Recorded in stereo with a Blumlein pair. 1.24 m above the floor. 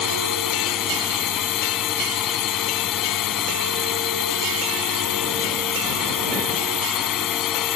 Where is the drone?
30° left.